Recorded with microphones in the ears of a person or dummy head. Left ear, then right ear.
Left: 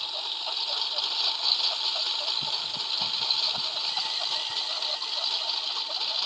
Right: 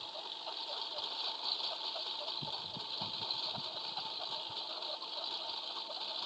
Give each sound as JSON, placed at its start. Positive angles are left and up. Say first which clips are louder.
{"t": 0.0, "sound": "a lawn mower", "louder": "left 12 dB", "side_deg": 55}